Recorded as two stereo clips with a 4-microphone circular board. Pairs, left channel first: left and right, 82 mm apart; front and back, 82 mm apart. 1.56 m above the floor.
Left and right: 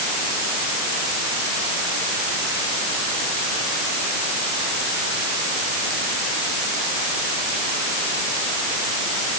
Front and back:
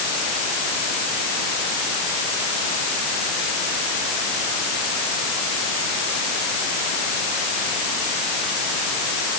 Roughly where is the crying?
No crying in this recording.